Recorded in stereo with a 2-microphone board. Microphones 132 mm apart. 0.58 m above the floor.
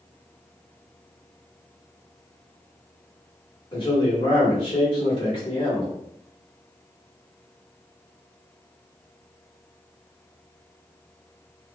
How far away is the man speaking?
About 1.4 m.